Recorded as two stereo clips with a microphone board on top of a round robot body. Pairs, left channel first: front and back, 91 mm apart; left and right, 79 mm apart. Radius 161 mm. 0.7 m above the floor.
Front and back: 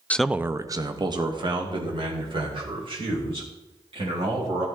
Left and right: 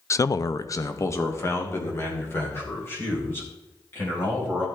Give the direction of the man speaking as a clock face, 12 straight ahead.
10 o'clock.